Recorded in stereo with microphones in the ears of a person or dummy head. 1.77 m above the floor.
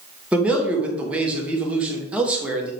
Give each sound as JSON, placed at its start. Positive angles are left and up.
{"t": 0.3, "sound": "a man speaking", "side_deg": -10, "distance_m": 1.6}